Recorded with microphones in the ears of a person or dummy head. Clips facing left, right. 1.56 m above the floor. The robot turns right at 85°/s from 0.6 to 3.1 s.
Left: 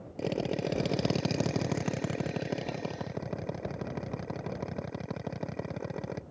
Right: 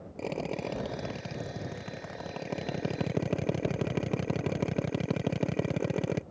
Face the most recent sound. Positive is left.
turn(degrees=-135)